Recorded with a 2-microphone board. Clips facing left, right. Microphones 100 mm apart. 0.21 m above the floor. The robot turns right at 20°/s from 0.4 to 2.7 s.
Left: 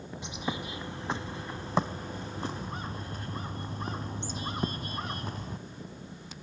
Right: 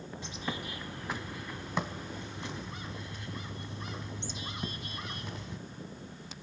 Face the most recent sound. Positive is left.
turn(degrees=70)